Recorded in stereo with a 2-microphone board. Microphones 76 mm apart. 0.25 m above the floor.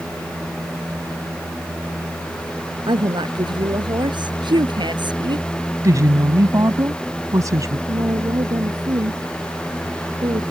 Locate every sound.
2.9 s a woman speaking: 75° right (ahead or behind)
5.8 s a woman speaking: 45° right (ahead or behind)
7.9 s a woman speaking: 60° right (ahead or behind)